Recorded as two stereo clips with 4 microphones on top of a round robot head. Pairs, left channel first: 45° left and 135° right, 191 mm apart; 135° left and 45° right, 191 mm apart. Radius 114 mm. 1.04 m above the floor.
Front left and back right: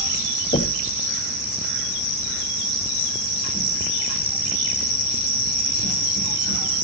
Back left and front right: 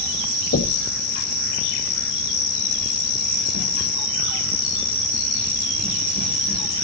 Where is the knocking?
105° left, 1.7 m.